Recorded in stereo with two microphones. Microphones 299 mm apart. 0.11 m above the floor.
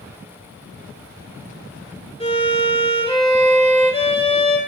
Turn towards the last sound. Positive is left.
turn(degrees=20)  # may be behind; listen again after turning